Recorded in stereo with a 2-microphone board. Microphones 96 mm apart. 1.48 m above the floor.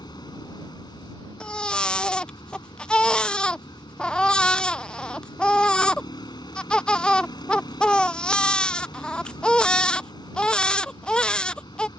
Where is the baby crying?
10° left (ahead or behind).